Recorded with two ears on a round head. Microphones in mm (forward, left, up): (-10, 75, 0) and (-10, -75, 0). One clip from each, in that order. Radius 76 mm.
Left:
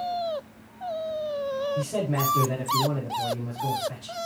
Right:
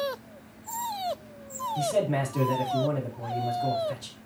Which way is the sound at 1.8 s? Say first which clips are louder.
Right 2 dB; 20° right (ahead or behind).